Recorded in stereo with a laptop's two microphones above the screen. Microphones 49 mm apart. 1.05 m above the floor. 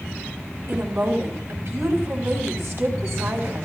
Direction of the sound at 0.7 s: 70° right (ahead or behind).